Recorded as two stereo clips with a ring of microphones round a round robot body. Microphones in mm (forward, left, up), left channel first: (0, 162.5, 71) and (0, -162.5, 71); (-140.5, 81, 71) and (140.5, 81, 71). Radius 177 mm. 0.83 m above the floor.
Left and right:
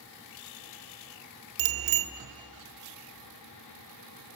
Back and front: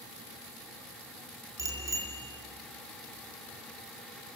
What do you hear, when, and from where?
1.6 s a bicycle bell: 80° right, 2 m